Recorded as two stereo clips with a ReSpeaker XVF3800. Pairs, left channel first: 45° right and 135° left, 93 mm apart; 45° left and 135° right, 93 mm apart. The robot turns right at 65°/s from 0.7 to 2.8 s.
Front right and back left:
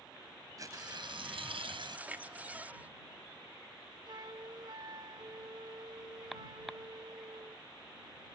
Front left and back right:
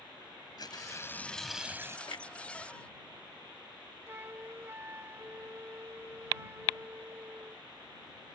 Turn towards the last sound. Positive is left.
turn(degrees=165)